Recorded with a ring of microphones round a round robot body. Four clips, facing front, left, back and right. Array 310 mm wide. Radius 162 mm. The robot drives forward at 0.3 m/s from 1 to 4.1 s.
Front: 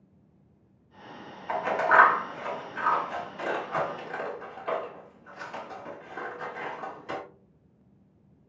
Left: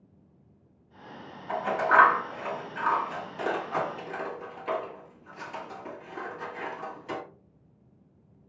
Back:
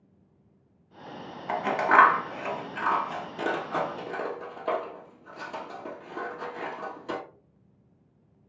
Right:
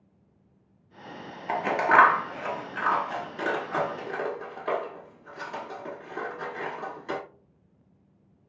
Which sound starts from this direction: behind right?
Scissors, at 1.5 s.